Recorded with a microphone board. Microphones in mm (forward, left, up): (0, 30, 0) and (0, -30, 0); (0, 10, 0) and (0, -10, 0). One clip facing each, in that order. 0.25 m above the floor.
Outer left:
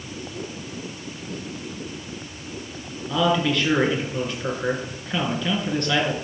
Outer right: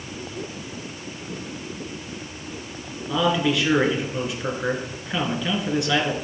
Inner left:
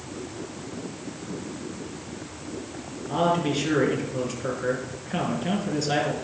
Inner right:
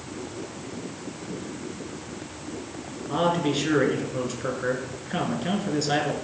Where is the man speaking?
5° right (ahead or behind), 3.5 m.